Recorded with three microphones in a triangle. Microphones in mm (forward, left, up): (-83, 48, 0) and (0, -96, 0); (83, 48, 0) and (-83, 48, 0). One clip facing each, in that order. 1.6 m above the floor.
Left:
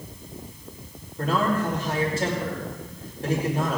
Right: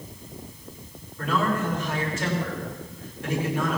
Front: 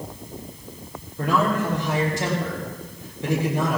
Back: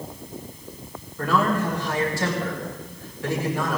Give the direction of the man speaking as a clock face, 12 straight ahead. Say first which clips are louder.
Left 2 dB, even; 10 o'clock.